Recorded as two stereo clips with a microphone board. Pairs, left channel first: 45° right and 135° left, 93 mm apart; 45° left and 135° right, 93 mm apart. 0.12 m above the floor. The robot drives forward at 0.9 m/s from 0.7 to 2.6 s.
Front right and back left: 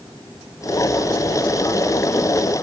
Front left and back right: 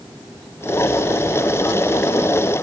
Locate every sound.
Only background noise.